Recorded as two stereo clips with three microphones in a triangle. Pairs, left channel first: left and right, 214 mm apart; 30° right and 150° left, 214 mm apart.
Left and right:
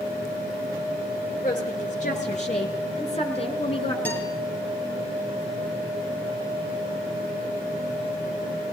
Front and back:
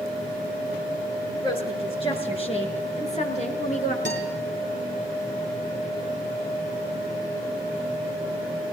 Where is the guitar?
10° left, 10 m.